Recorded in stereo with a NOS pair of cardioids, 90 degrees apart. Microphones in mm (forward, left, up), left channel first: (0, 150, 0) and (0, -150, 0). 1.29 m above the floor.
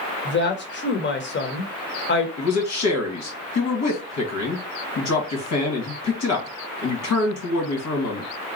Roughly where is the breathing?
I don't hear breathing.